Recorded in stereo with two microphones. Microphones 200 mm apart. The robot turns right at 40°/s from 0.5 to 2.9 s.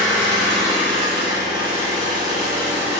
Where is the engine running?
160° left, 1.6 m; by 3.0 s 105° right, 1.6 m.